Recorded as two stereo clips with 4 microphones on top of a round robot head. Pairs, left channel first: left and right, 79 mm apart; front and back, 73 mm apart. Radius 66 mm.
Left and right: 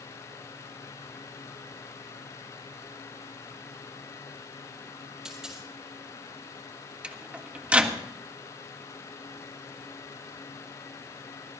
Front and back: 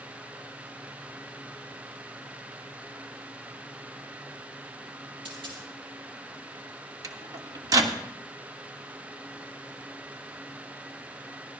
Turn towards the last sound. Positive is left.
turn(degrees=-160)